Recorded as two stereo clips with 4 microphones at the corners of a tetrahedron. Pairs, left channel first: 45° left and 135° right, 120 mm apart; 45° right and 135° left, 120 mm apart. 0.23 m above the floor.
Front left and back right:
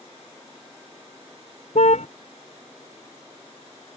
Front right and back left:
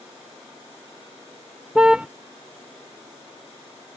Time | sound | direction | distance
1.8 | a car horn | 50° left | ?